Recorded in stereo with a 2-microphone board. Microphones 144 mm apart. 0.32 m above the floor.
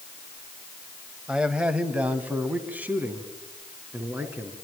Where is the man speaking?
5° right (ahead or behind), 1.8 m; by 4.5 s 15° right (ahead or behind), 4.5 m.